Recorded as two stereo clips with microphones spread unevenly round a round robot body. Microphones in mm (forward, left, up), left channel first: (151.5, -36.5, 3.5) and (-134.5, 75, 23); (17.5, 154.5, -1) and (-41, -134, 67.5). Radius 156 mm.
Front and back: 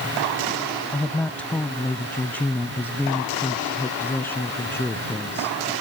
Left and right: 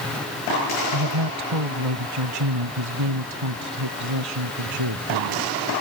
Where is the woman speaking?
110° right; by 5.5 s 105° right.